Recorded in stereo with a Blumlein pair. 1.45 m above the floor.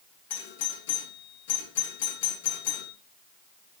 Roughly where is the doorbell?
Ahead left.